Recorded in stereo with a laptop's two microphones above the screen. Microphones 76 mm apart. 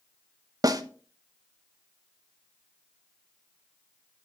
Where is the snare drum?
55° right (ahead or behind), 0.8 m.